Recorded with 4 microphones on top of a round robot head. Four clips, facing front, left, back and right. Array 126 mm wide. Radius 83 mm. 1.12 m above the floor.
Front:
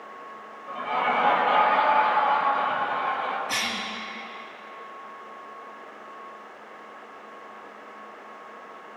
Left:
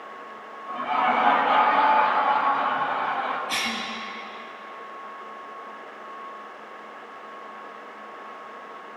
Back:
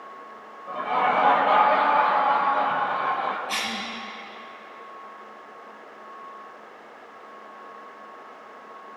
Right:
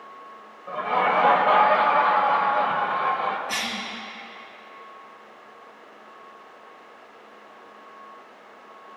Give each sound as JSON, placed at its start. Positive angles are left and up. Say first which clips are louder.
{"t": 0.7, "sound": "laughter", "louder": "right 1 dB, back 3 dB", "azimuth_deg": -100, "distance_m": 4.0}
{"t": 3.5, "sound": "a cough", "louder": "left 1 dB, even", "azimuth_deg": -45, "distance_m": 6.0}